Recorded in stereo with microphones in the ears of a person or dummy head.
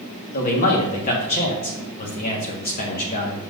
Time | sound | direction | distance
0.3 | a man speaking | 45° left (ahead or behind) | 1.6 m